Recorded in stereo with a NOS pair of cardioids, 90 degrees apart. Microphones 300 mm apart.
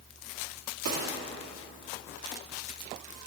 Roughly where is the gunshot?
Ahead right.